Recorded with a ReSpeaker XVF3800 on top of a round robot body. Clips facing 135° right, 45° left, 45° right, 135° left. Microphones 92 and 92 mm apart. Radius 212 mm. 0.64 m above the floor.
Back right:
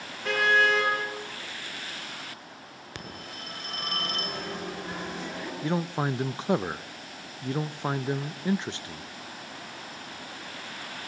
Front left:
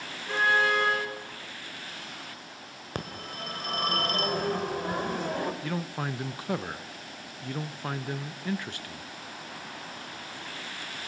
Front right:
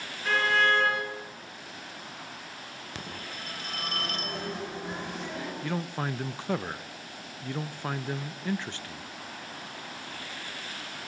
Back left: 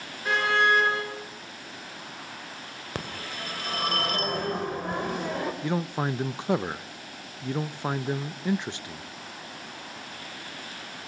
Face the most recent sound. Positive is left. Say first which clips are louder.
# back right 5 dB, back left 2 dB
turn(degrees=-170)